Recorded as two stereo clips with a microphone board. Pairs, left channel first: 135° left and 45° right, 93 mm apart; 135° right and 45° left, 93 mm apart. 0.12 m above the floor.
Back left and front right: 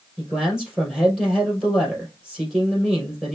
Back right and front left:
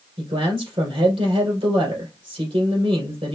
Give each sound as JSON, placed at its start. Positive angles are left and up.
{"t": 0.2, "sound": "a man speaking", "azimuth_deg": 40, "distance_m": 3.0}